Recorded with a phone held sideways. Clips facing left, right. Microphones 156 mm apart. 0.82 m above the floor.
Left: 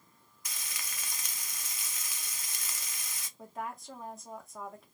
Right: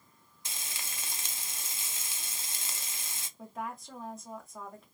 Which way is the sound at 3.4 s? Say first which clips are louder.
Even; centre (ahead or behind).